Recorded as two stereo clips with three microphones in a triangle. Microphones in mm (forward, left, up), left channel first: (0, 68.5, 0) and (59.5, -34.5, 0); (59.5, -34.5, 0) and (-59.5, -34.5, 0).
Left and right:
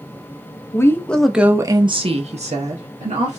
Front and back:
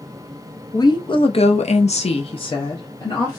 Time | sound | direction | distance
0.7 | a woman speaking | 55° left | 0.7 m